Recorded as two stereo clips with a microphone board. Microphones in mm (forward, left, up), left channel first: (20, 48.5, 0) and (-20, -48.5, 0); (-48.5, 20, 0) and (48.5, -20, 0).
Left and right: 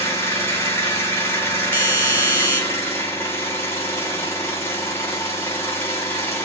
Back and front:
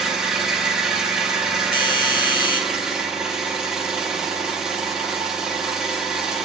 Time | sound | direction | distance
0.0 | an engine running | 50° left | 1.0 m
1.7 | a doorbell | straight behind | 0.8 m